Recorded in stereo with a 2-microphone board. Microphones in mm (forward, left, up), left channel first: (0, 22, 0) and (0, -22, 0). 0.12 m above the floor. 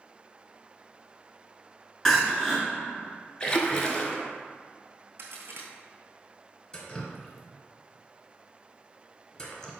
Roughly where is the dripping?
Centre.